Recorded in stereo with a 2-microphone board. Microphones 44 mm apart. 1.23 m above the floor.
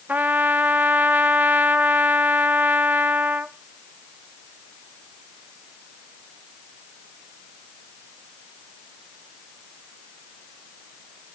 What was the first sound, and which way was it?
A trumpet, 40° right (ahead or behind).